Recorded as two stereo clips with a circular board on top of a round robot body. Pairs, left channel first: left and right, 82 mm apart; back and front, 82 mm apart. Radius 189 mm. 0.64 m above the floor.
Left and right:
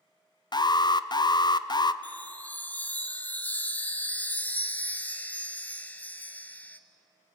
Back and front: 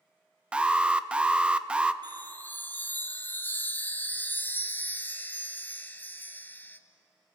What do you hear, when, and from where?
0.5 s an alarm: 75° left, 0.8 m
2.0 s a chime: 140° left, 1.2 m